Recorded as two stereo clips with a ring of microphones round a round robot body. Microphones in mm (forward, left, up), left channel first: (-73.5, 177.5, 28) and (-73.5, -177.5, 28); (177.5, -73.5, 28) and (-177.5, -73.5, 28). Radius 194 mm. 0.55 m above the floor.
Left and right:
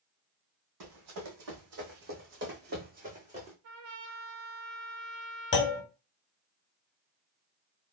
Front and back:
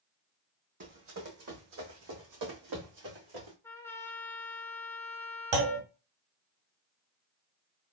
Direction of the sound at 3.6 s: 85° right.